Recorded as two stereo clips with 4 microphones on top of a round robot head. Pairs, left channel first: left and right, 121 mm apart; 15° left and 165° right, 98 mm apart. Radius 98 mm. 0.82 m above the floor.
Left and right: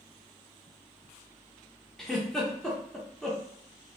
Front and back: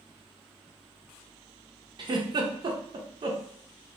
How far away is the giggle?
About 0.6 m.